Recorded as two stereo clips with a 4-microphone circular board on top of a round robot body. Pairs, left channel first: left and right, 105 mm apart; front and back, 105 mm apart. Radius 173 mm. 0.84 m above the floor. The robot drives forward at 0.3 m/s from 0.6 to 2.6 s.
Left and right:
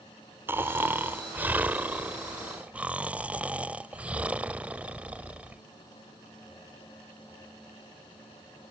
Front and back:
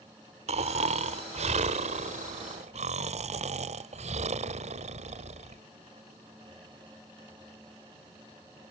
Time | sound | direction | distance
0.5 | snoring | 160° right | ?